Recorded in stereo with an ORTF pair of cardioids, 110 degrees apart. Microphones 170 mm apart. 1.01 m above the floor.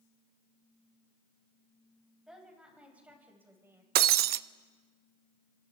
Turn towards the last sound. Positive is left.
turn(degrees=-70)